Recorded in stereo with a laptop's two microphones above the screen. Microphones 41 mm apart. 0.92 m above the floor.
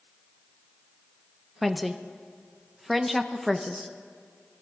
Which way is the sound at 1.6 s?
Centre (ahead or behind).